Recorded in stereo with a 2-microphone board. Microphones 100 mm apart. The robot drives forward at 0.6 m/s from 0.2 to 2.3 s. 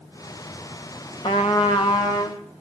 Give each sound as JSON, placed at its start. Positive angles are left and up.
{"t": 1.2, "sound": "a trumpet", "side_deg": 65, "distance_m": 3.5}